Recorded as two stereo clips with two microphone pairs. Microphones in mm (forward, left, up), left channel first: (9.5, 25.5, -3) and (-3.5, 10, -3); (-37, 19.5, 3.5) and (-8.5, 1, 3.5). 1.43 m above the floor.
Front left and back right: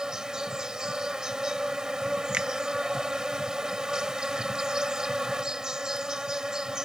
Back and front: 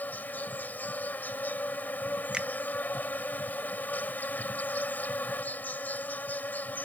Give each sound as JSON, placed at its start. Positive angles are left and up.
{"t": 0.0, "sound": "an insect", "azimuth_deg": 170}
{"t": 2.3, "sound": "a finger snap", "azimuth_deg": -100}